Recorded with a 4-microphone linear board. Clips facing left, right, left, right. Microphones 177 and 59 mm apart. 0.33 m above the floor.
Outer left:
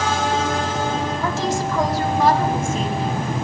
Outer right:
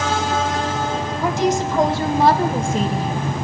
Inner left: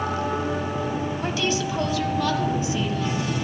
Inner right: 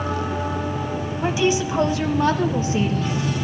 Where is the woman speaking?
15° right (ahead or behind), 2 m; by 3.2 s 40° right (ahead or behind), 3 m.